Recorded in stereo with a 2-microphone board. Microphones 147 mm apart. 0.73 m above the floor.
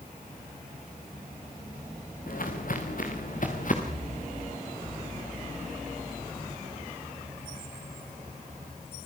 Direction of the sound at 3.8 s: 50° right (ahead or behind).